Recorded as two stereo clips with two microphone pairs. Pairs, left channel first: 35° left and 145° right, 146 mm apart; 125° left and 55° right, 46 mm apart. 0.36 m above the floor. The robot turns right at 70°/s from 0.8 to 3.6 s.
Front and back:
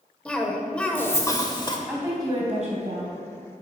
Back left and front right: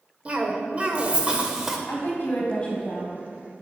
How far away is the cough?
About 1.0 m.